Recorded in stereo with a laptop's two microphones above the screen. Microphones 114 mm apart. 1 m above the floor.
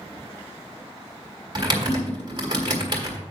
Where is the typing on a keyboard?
40° right (ahead or behind), 1.6 m.